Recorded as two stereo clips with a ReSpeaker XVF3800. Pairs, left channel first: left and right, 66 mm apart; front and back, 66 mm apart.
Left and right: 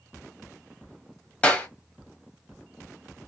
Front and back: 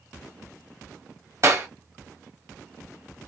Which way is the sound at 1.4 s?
155° left.